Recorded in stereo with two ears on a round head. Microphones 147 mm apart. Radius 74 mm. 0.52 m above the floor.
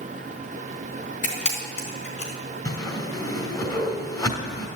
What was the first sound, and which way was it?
A camera shutter, 50° left (ahead or behind).